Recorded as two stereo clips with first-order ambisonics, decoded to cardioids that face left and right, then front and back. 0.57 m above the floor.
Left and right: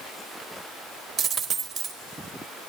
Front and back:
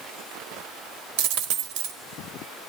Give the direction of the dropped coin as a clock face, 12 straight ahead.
5 o'clock.